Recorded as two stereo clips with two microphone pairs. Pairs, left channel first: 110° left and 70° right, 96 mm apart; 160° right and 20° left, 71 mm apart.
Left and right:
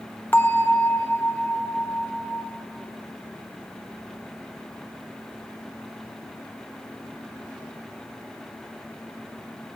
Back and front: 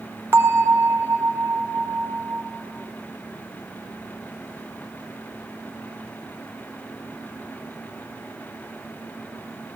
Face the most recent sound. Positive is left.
turn(degrees=55)